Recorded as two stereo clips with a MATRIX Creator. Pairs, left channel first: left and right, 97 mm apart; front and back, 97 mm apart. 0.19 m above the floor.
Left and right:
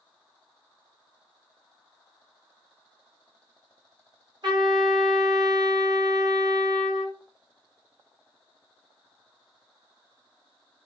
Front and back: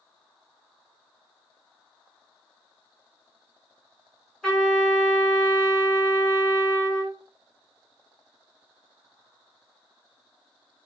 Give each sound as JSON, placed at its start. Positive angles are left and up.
{"t": 4.4, "sound": "a trumpet", "azimuth_deg": -85, "distance_m": 1.8}